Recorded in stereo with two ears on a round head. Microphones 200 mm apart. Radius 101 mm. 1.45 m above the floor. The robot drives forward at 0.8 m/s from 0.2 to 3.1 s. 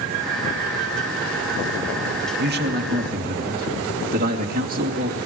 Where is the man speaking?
50° right (ahead or behind), 2 m; by 5.2 s 40° right (ahead or behind), 2.5 m.